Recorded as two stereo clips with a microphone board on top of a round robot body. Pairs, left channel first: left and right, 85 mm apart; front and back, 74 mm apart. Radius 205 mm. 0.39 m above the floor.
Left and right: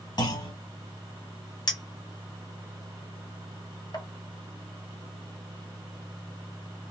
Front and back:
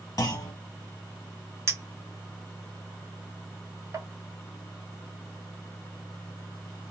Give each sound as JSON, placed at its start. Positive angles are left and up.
{"t": 0.2, "sound": "a clunk", "azimuth_deg": 55, "distance_m": 1.2}
{"t": 1.7, "sound": "a clink", "azimuth_deg": 130, "distance_m": 1.2}